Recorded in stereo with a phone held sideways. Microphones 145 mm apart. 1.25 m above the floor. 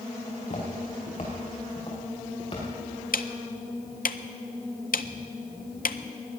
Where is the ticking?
75° left (ahead or behind), 0.5 m.